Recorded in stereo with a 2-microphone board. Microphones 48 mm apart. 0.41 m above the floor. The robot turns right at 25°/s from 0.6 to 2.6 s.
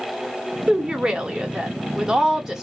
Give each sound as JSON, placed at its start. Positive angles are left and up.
{"t": 0.7, "sound": "a woman speaking", "side_deg": -20, "distance_m": 1.0}